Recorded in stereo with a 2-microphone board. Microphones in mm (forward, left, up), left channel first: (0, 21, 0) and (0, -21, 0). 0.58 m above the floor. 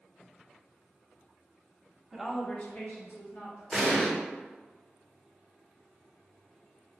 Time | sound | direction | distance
2.1 | a woman speaking | 10° right (ahead or behind) | 0.9 m
3.7 | an explosion | 15° left (ahead or behind) | 1.3 m